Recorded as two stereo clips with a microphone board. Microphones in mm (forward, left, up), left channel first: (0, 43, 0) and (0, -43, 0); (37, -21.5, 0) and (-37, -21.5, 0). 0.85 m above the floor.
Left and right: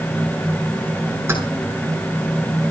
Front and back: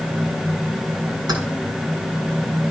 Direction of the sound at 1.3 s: 150° right.